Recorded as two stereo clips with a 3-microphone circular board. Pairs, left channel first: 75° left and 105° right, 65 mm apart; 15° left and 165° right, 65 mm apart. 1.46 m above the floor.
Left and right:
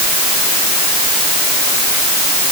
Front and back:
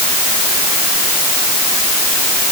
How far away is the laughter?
No laughter in this recording.